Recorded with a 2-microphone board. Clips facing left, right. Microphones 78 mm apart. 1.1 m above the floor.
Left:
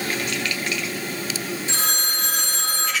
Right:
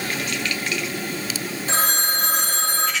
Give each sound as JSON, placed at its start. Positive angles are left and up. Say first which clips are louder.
{"t": 1.7, "sound": "a phone ringing", "louder": "right 4 dB", "side_deg": -35, "distance_m": 3.0}